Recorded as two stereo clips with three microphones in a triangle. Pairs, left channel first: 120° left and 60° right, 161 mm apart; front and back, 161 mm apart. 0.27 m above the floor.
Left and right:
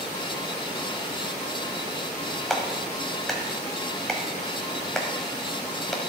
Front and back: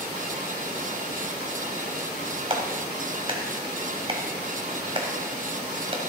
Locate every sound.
2.5 s a clap: 155° right, 1.5 m